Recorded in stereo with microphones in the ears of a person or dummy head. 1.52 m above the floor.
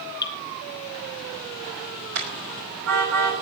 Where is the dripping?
25° left (ahead or behind), 1.6 m.